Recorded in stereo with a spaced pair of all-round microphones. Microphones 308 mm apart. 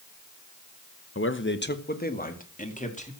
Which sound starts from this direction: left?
A man speaking, at 1.1 s.